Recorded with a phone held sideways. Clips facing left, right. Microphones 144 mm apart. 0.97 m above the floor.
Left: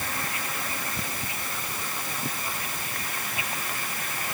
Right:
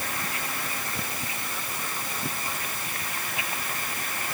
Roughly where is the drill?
No drill in this recording.